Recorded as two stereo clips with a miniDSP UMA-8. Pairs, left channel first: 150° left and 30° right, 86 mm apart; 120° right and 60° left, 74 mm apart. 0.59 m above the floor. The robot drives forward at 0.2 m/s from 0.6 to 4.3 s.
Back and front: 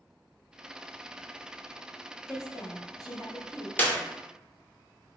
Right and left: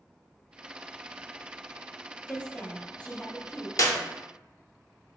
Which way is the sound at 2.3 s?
170° left.